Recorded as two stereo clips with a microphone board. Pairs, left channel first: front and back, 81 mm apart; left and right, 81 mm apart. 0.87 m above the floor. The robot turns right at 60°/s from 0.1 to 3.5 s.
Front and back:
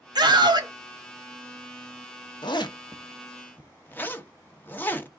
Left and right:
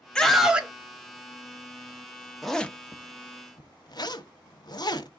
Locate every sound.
0.1 s a scream: 170° left, 1.5 m; by 0.7 s 160° right, 1.5 m
2.4 s a zipper: straight ahead, 0.9 m; by 5.1 s 65° left, 0.9 m